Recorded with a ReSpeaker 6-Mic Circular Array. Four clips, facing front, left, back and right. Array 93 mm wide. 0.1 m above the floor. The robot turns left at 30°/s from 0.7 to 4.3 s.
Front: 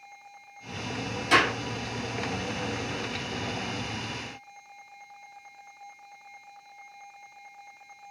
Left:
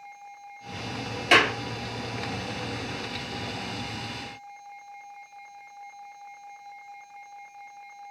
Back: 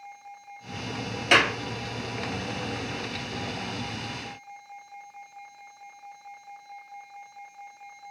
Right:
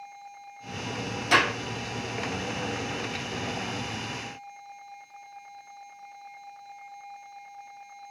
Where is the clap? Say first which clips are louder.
Left 2 dB, back 1 dB; 135° left, 1.8 m; by 1.6 s 125° left, 1.8 m.